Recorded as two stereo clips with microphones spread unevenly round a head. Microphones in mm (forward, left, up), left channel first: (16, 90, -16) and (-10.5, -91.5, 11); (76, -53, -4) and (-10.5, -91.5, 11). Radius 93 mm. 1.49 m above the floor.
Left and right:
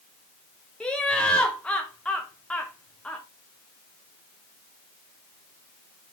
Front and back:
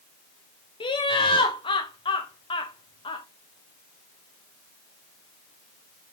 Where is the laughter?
Straight ahead, 1.2 m.